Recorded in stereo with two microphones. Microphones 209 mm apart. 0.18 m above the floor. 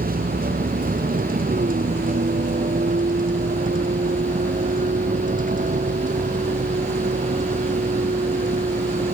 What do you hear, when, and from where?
0.0 s a vehicle: 40° right (ahead or behind); by 9.1 s 35° right (ahead or behind)